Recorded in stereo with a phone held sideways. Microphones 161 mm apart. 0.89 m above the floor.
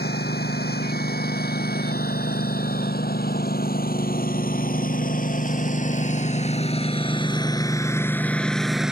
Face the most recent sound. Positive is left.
turn(degrees=-5)  # may be behind; listen again after turning